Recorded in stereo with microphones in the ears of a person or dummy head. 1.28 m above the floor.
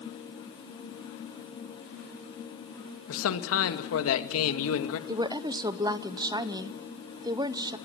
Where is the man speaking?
75° left (ahead or behind), 2 m.